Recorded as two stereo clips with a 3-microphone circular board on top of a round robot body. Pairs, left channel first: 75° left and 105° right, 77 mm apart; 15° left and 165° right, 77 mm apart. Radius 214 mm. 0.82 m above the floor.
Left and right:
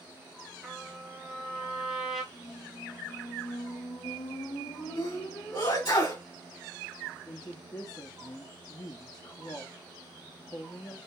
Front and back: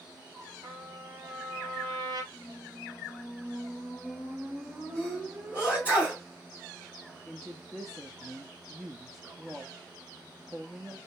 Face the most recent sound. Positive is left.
turn(degrees=110)